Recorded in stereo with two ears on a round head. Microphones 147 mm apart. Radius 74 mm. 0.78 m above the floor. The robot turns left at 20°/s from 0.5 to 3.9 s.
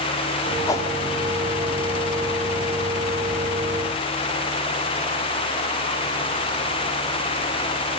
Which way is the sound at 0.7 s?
20° left (ahead or behind).